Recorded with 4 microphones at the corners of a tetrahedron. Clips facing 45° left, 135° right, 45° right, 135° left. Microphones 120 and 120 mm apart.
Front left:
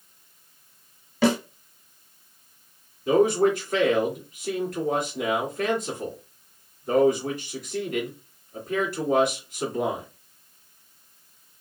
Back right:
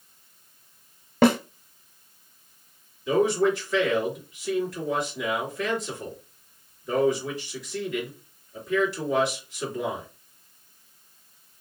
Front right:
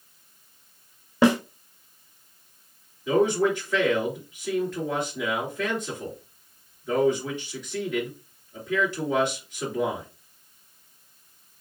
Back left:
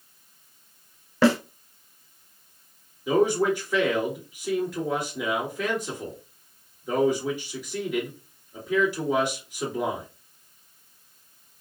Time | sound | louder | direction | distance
1.2 | a snare drum | back right 2 dB, even | 115° right | 0.5 m
3.1 | a man speaking | front left 2 dB, even | 55° left | 1.9 m